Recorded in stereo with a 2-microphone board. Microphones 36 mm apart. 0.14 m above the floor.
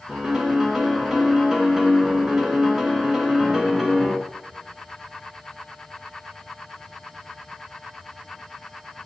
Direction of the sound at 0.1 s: 15° right (ahead or behind).